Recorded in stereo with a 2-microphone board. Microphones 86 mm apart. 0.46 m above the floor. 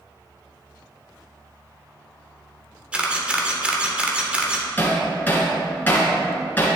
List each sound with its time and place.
2.9 s a camera shutter: 15° right (ahead or behind), 1.3 m
4.8 s hammering: 20° left (ahead or behind), 2 m